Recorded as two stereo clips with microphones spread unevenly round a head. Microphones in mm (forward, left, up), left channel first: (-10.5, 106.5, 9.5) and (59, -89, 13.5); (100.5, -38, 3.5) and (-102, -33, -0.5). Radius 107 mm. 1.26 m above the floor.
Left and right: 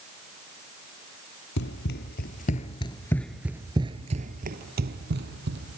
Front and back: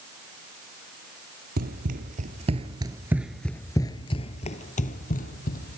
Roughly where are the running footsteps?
Behind left.